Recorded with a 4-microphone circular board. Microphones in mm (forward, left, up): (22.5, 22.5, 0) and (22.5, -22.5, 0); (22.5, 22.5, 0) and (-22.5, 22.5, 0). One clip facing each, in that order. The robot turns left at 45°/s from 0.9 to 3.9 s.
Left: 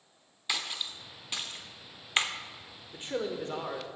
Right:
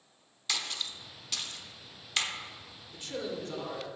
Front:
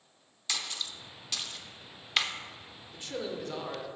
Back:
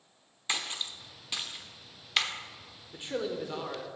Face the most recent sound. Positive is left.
turn(degrees=90)